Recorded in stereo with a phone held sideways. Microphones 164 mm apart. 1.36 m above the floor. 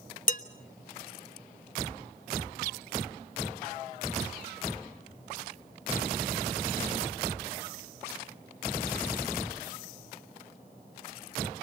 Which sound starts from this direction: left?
Dishes clattering, at 0.3 s.